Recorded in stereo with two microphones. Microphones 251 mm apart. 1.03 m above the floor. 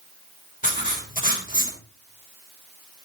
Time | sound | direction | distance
0.6 | writing | 35° left (ahead or behind) | 3.5 m